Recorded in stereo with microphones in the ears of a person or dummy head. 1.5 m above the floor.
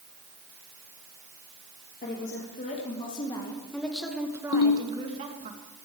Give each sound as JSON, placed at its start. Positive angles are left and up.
{"t": 2.0, "sound": "a woman speaking", "side_deg": 50, "distance_m": 2.5}
{"t": 4.5, "sound": "a ringtone", "side_deg": 70, "distance_m": 1.7}